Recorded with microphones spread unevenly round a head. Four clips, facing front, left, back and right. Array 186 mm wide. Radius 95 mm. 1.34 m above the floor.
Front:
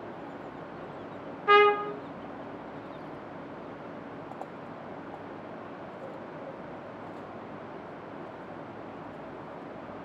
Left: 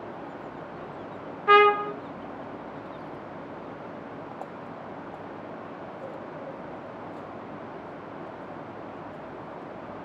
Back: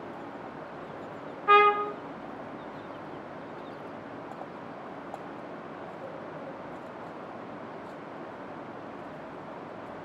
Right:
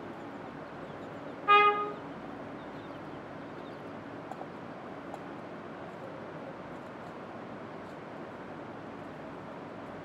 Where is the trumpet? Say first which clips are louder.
Left 6 dB, even; 115° left, 0.9 m.